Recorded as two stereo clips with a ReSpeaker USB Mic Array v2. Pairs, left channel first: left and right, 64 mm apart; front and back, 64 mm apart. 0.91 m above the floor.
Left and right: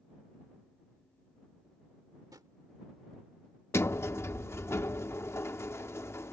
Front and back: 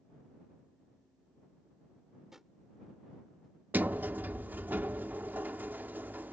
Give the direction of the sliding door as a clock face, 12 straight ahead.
8 o'clock.